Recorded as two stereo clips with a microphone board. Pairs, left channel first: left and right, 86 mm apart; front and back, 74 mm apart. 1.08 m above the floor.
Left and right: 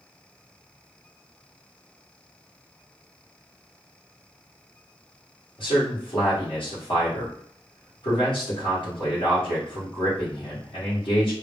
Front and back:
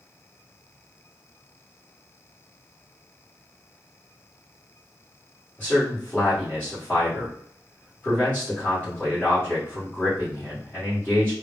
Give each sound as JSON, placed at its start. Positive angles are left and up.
{"t": 5.6, "sound": "a man speaking", "azimuth_deg": 75, "distance_m": 1.1}